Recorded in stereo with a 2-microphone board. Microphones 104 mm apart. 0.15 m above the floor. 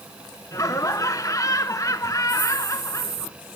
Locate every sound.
0.5 s laughter: 30° left (ahead or behind), 1.5 m